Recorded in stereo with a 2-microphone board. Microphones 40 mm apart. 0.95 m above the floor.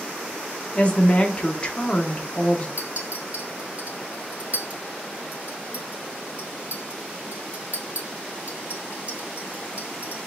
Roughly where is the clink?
Right.